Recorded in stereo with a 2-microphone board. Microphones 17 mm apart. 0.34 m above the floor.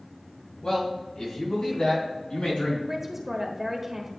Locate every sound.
0.6 s a man speaking: 55° left (ahead or behind), 2.5 m; by 2.8 s 70° left (ahead or behind), 3.5 m
2.9 s a man speaking: 20° right (ahead or behind), 1.2 m